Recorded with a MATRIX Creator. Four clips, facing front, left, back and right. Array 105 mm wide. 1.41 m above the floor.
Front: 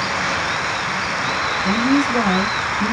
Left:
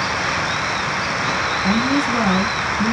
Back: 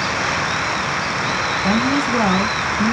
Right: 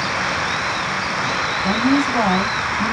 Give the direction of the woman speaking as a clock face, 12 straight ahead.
7 o'clock.